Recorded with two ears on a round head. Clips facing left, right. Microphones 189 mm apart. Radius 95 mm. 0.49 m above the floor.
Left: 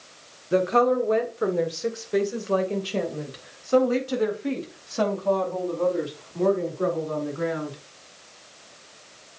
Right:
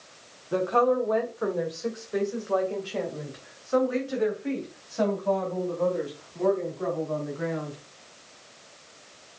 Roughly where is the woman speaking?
Left.